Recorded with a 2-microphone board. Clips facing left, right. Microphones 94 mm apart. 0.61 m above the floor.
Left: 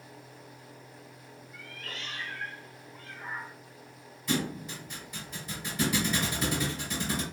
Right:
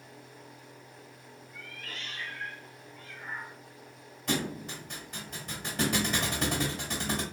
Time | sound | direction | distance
1.5 | a cat meowing | 65° left (ahead or behind) | 0.9 m
4.3 | a thud | 60° right (ahead or behind) | 1.3 m